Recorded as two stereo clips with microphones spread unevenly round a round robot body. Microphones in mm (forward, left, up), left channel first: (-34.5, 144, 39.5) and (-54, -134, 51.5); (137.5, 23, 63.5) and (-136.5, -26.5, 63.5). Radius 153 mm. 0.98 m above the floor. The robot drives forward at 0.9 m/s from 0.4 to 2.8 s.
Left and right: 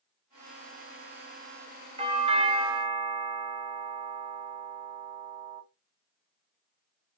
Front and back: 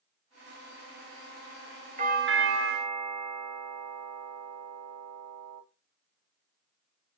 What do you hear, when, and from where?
2.0 s a doorbell: 145° right, 1.0 m; by 5.6 s 165° right, 1.5 m